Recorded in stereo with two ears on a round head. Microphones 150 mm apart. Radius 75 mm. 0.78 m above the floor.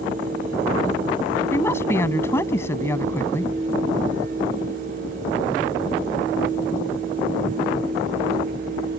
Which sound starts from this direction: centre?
A woman speaking, at 1.5 s.